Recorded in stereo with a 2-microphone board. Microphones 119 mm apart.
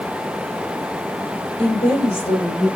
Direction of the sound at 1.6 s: 55° left (ahead or behind).